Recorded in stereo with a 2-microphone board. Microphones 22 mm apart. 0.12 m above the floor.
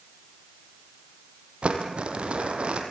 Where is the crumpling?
65° right (ahead or behind), 3.5 m.